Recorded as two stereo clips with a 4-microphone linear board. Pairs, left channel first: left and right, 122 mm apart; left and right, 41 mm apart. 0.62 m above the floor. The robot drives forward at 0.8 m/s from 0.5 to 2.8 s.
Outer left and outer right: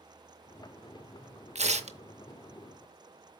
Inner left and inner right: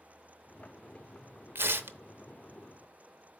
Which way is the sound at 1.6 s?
75° right (ahead or behind).